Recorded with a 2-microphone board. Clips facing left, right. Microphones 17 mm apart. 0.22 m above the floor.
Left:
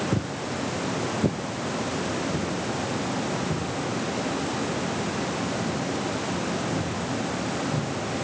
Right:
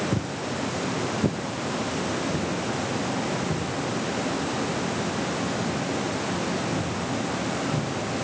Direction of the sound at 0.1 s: 60° left (ahead or behind).